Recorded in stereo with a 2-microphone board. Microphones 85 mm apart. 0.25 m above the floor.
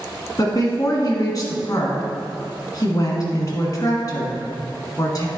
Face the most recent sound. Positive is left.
turn(degrees=45)  # may be behind; listen again after turning